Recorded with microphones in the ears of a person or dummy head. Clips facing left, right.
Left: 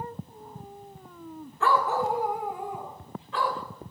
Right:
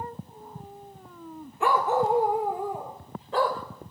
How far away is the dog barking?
About 1.2 m.